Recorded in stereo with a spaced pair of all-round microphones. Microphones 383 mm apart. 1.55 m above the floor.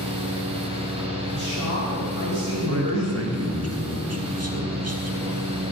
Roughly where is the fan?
Centre.